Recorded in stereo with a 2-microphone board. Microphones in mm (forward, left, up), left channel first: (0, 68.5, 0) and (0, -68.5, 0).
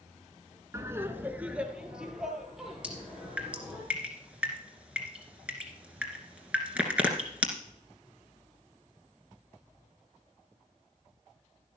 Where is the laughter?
20° right (ahead or behind), 1.1 m; by 3.8 s centre (ahead or behind), 4.5 m.